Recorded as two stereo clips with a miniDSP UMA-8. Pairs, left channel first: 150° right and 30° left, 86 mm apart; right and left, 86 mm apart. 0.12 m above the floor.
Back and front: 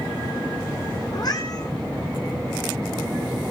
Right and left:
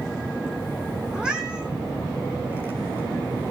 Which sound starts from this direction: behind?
A cat meowing, at 1.1 s.